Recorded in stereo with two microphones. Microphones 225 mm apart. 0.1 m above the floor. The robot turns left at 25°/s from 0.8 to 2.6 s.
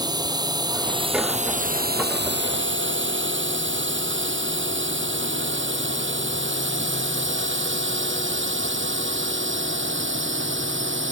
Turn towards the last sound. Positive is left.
turn(degrees=-55)  # may be behind; listen again after turning